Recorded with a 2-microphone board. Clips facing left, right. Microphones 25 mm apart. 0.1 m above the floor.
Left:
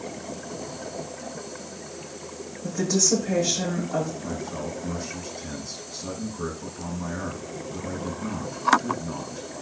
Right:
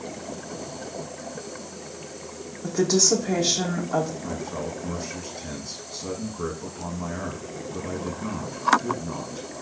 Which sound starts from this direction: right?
A woman speaking, at 2.6 s.